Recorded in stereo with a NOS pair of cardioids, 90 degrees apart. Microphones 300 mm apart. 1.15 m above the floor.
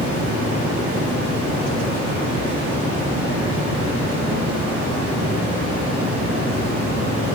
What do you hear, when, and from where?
0.0 s running water: 40° right, 1.1 m